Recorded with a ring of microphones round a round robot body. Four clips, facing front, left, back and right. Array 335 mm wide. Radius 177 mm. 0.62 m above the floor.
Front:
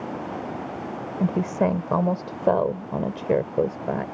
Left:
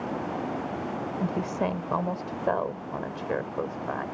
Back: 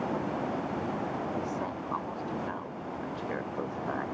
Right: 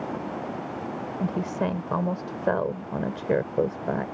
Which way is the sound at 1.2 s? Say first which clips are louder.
Right 2 dB, front 10 dB; 10° right.